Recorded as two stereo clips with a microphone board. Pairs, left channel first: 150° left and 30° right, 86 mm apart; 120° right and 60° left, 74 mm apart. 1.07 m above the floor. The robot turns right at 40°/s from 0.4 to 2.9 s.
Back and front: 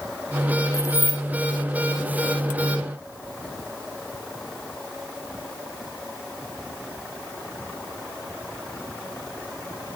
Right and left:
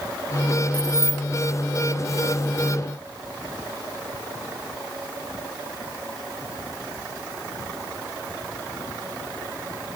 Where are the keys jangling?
95° left, 0.7 m; by 1.2 s 115° left, 0.7 m.